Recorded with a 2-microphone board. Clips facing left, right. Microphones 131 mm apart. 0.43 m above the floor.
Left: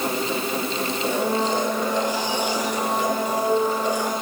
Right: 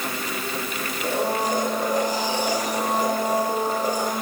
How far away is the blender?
About 5 m.